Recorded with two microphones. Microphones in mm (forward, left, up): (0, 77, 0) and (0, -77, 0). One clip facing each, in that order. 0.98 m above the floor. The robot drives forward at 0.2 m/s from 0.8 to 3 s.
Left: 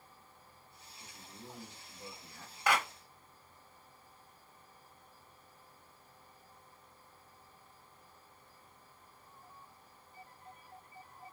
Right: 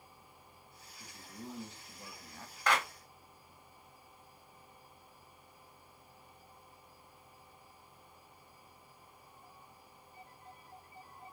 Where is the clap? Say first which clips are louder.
Left 1 dB; 10° left (ahead or behind), 1.2 m.